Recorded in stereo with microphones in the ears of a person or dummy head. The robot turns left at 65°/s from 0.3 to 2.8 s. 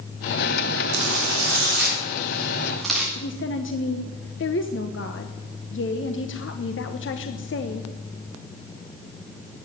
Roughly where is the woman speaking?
Left.